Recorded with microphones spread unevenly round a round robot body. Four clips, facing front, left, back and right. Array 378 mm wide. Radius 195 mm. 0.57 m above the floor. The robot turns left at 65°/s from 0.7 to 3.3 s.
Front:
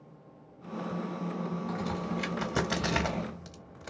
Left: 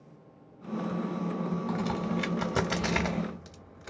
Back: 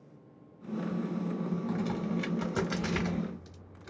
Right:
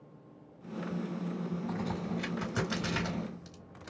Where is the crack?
120° left, 2.5 m; by 3.9 s 15° left, 2.5 m.